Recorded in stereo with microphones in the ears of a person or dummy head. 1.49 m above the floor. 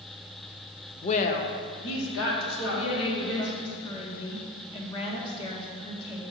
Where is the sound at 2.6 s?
30° left (ahead or behind), 1.4 m.